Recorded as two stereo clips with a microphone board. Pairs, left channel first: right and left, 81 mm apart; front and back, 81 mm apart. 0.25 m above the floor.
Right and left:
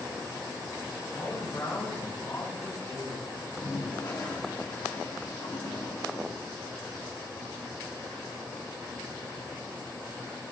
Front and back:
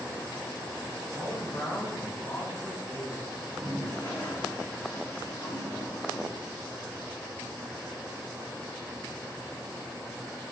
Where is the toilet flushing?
60° right, 2.5 m.